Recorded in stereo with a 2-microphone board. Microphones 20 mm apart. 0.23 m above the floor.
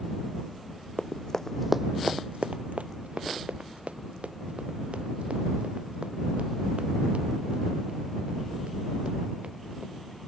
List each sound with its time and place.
1.0 s running footsteps: 40° left (ahead or behind); by 10.0 s 70° right (ahead or behind)